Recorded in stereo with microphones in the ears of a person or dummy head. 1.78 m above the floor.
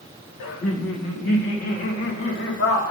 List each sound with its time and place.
0.4 s laughter: 75° left (ahead or behind), 1.4 m